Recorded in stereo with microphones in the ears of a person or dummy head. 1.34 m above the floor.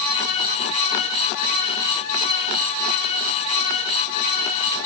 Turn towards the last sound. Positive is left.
No sound to turn to.